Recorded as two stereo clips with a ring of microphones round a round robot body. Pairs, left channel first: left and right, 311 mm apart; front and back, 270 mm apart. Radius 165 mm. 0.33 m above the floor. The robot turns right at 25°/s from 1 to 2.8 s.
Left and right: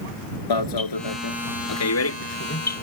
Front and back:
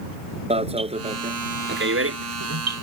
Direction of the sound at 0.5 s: 110° left.